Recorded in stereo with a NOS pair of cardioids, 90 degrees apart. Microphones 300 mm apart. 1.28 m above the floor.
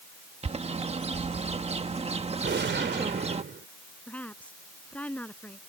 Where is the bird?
20° right.